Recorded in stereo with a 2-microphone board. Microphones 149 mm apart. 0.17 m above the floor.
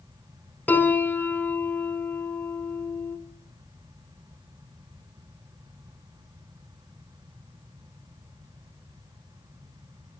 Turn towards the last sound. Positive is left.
turn(degrees=10)  # may be behind; listen again after turning